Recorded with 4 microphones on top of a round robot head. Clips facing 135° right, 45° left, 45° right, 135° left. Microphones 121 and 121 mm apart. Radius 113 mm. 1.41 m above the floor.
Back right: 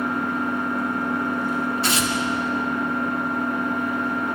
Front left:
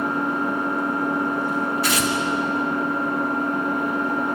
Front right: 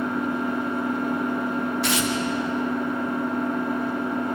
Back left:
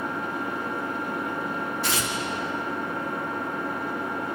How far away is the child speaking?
No child speaking in this recording.